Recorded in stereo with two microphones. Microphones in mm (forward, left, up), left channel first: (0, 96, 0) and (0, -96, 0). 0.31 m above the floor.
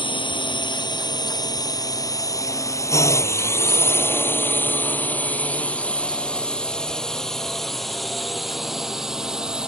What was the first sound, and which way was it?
A drone, 25° left (ahead or behind).